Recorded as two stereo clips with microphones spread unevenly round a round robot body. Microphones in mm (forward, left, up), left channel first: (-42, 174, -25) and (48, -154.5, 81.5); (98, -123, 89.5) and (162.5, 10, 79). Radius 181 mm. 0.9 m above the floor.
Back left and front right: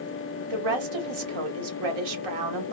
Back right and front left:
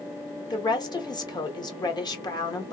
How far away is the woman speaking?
About 1.6 m.